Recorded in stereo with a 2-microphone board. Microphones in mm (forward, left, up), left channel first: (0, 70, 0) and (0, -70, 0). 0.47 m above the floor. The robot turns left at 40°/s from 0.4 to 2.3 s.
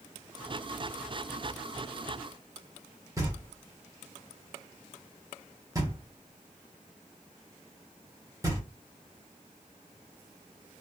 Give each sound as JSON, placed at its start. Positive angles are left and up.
{"t": 3.2, "sound": "knocking", "side_deg": -25, "distance_m": 1.2}